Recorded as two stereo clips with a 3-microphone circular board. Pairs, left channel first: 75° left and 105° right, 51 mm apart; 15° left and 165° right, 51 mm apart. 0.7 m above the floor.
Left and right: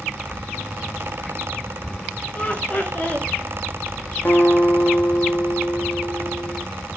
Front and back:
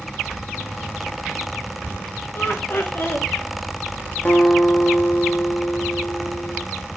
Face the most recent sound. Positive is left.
turn(degrees=55)